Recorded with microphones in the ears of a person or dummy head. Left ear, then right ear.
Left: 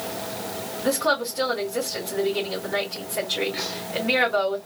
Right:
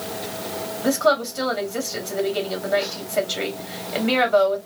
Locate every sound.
0.8 s a woman speaking: 25° right (ahead or behind), 2 m